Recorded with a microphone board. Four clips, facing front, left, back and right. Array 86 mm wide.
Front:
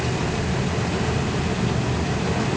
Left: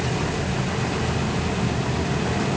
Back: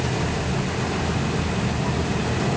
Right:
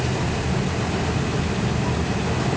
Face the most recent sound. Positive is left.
No sound to turn to.